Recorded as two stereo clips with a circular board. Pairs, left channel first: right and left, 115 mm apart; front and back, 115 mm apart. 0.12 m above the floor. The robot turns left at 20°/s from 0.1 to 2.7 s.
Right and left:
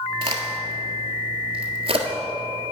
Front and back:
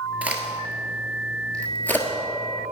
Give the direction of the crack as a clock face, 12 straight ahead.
8 o'clock.